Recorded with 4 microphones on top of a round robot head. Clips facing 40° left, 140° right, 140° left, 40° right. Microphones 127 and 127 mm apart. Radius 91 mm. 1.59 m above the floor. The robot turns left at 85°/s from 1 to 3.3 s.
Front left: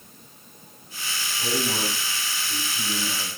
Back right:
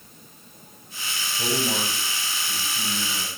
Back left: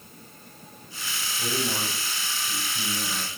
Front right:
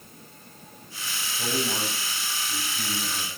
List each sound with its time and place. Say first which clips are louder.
1.4 s a man speaking: back right 1 dB, front right 1 dB; 110° right, 9.5 m; by 3.3 s 85° left, 9.5 m